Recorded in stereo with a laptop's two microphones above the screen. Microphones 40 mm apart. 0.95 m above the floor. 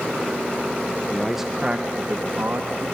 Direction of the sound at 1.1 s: 10° left (ahead or behind).